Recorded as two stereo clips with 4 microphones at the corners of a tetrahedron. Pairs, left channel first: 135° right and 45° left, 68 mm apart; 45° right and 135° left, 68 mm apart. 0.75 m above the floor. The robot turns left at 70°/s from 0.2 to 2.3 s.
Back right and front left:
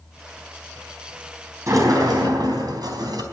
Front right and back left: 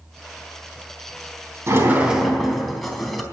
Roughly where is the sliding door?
Left.